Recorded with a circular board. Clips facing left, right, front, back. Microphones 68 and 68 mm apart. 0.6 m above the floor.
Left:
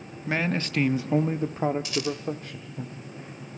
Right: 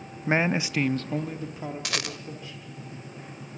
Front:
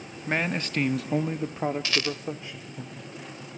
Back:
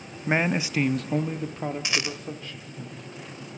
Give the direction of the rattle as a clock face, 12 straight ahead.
4 o'clock.